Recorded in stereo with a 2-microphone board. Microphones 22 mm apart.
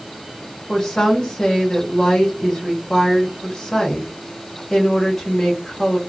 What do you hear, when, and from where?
0.7 s a woman speaking: 25° left (ahead or behind), 1.3 m